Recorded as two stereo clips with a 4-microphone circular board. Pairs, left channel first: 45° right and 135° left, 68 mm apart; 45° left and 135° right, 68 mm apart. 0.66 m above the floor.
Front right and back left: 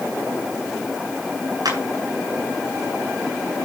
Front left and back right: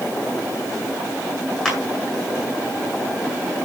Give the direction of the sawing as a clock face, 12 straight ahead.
I don't hear sawing.